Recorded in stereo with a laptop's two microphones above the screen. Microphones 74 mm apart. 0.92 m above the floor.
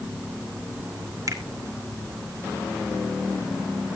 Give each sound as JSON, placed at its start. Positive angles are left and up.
{"t": 1.3, "sound": "a finger snap", "side_deg": -50, "distance_m": 2.0}